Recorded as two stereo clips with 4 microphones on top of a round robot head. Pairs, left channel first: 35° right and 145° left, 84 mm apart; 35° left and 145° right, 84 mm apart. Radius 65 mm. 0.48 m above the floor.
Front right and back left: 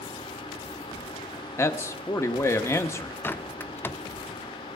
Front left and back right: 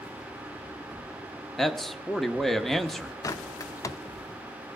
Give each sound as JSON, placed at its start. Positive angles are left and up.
{"t": 1.6, "sound": "a man speaking", "azimuth_deg": -50, "distance_m": 0.9}
{"t": 3.2, "sound": "a bird", "azimuth_deg": 20, "distance_m": 0.6}